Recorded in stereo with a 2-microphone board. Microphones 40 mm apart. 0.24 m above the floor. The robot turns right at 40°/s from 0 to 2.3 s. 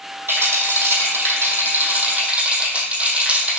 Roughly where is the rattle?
Behind right.